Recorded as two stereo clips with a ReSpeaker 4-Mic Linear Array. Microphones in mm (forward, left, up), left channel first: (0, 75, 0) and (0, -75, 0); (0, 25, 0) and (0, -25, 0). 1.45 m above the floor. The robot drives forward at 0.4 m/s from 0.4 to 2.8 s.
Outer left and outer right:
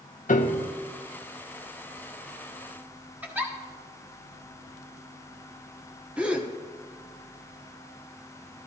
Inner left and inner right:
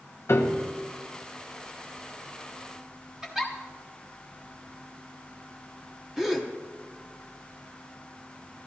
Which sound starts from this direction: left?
A piano, at 0.3 s.